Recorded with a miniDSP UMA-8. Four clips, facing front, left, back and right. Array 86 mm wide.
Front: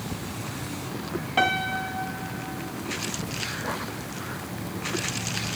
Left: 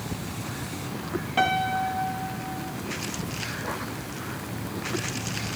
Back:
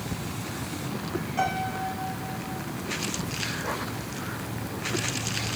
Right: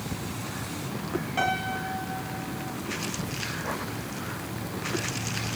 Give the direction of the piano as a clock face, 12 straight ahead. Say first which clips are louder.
Left 6 dB, front 4 dB; 11 o'clock.